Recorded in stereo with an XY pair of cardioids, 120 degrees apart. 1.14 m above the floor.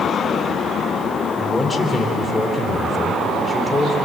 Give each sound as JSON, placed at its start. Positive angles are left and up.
{"t": 1.4, "sound": "a man speaking", "azimuth_deg": 20, "distance_m": 3.5}